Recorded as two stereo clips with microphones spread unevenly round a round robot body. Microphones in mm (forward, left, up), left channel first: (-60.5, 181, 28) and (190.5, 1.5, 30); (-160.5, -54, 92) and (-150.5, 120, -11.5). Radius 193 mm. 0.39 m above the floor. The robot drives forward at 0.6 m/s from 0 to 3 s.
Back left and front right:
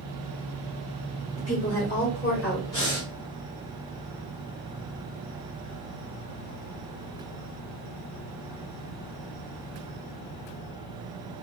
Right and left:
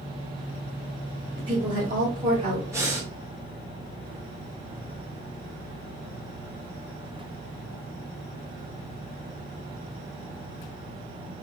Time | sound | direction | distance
1.4 | a woman speaking | 80° left | 1.6 m
2.7 | breathing | 115° left | 1.7 m